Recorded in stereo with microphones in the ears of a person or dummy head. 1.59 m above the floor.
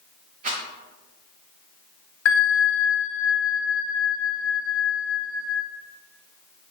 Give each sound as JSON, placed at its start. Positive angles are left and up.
{"t": 0.4, "sound": "a rattle", "side_deg": -40, "distance_m": 0.7}
{"t": 2.2, "sound": "a bell", "side_deg": 85, "distance_m": 1.0}